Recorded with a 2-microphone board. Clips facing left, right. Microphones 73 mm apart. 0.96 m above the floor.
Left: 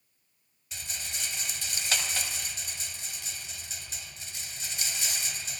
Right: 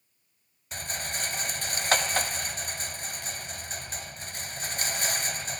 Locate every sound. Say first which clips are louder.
0.7 s a rattle: right 7 dB; 45° right (ahead or behind), 1.6 m